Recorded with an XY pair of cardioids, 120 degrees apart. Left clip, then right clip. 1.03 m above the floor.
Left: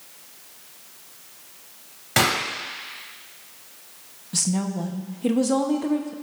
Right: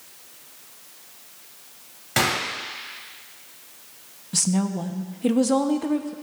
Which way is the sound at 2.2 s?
15° left.